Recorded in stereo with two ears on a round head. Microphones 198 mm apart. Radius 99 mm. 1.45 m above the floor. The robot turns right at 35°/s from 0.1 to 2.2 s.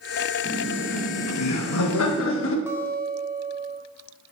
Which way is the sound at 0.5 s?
55° left (ahead or behind).